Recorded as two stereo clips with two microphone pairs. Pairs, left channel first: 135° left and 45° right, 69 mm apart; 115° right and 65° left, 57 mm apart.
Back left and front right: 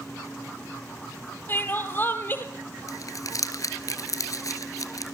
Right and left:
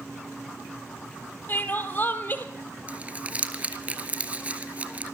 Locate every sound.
1.5 s crying: 170° right, 1.9 m
2.9 s crumpling: 125° left, 1.5 m